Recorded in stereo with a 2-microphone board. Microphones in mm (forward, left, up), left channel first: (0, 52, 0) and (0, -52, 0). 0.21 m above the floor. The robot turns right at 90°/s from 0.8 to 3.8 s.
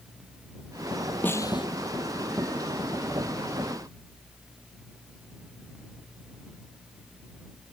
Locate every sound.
1.2 s a snare drum: 20° left; by 1.7 s 55° left